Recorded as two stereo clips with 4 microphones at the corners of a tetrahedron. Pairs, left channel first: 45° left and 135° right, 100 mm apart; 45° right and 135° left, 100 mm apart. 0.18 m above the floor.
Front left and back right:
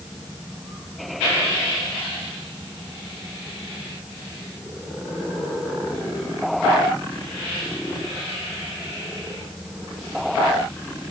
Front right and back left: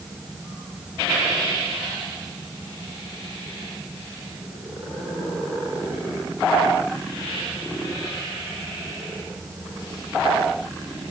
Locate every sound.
Only background noise.